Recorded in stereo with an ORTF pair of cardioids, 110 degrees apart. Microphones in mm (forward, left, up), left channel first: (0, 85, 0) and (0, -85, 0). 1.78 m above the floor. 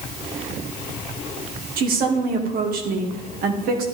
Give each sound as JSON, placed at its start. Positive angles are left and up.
{"t": 1.8, "sound": "a woman speaking", "azimuth_deg": -60, "distance_m": 2.5}